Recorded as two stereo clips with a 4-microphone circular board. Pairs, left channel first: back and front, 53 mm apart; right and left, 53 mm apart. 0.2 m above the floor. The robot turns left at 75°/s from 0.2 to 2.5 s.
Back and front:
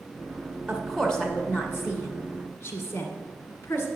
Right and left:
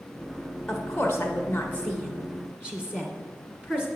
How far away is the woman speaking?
About 1.9 m.